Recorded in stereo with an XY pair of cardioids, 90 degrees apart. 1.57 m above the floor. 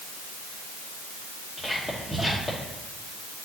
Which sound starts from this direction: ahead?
Whispering, at 1.6 s.